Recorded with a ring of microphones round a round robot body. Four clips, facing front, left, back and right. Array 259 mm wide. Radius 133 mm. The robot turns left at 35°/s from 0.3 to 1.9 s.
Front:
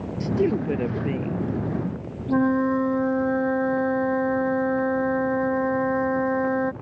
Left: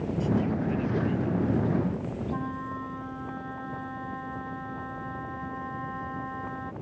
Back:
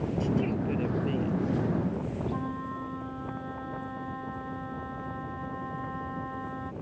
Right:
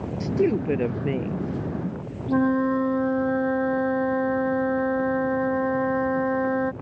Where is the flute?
40° right.